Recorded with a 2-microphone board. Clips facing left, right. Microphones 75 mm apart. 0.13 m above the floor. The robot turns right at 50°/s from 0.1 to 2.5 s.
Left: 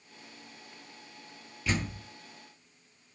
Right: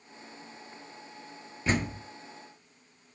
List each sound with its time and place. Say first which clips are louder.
1.7 s a door slam: right 4 dB; 40° right (ahead or behind), 1.5 m; by 2.0 s 50° right (ahead or behind), 1.5 m